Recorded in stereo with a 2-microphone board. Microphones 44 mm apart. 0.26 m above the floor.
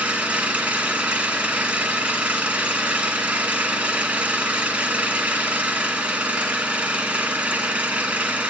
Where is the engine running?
30° right (ahead or behind), 1.5 m.